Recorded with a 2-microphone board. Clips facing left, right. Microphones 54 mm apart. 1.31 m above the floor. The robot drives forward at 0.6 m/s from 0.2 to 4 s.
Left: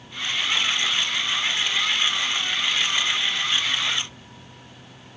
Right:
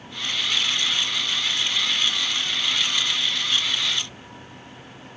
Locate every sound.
Only background noise.